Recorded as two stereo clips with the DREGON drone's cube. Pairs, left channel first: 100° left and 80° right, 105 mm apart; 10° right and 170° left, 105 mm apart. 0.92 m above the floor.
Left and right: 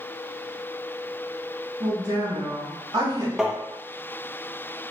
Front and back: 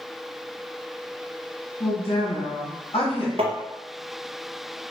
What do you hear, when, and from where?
1.8 s a woman speaking: 30° right, 1.8 m
3.4 s tapping: 160° right, 0.6 m